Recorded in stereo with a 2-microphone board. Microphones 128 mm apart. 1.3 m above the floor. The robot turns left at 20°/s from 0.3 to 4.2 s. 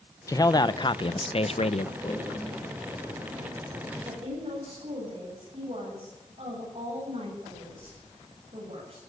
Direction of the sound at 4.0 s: 50° right (ahead or behind).